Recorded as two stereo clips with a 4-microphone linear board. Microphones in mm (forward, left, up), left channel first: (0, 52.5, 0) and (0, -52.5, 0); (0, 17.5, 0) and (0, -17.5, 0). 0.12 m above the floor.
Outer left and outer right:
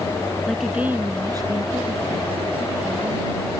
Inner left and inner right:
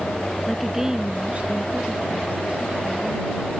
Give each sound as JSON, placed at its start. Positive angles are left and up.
{"t": 0.5, "sound": "a woman speaking", "side_deg": 0}